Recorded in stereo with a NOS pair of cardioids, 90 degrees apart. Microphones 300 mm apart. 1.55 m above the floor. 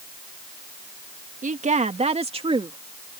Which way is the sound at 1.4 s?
25° right.